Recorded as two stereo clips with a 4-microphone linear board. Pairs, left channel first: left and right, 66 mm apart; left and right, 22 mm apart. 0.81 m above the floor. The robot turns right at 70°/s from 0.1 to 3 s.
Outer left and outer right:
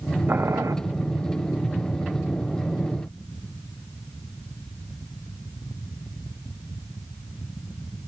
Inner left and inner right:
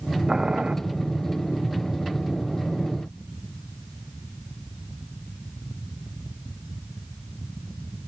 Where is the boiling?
145° right, 0.5 m; by 0.8 s 115° right, 0.5 m.